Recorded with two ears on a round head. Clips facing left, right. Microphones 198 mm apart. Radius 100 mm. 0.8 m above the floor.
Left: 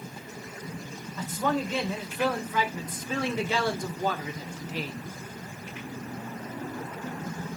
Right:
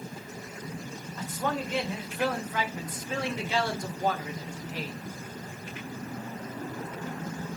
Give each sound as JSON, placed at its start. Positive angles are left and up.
{"t": 1.2, "sound": "a man speaking", "side_deg": 80, "distance_m": 3.0}